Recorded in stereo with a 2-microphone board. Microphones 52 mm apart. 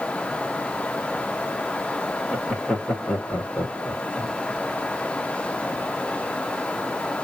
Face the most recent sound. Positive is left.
turn(degrees=15)  # may be behind; listen again after turning